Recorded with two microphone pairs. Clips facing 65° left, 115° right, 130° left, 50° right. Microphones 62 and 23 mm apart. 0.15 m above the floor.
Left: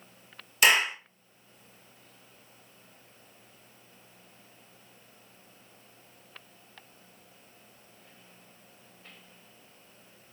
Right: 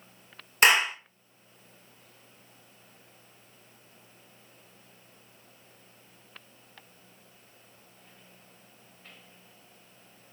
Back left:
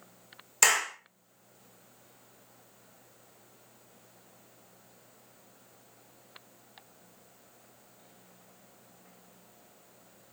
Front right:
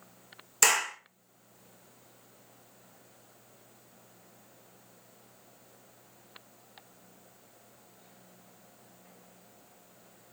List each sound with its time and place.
0.6 s a clap: 150° right, 1.9 m